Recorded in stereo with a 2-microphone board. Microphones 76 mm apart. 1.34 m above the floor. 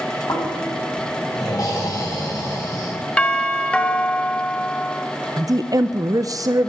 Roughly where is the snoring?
Left.